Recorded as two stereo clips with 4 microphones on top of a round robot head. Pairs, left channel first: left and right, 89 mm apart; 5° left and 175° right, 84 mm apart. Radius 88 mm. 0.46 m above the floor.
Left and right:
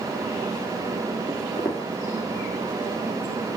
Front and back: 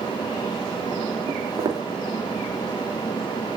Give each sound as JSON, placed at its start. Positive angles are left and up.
{"t": 1.3, "sound": "footsteps", "azimuth_deg": 150, "distance_m": 2.5}